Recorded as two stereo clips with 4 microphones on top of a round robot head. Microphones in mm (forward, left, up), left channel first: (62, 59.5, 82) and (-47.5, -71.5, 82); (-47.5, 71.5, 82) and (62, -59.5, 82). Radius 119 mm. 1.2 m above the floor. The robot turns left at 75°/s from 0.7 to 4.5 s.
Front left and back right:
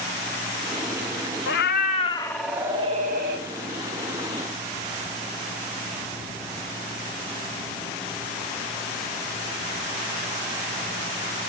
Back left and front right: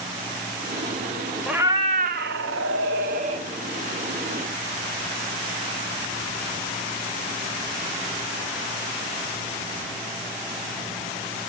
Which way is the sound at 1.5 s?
35° left.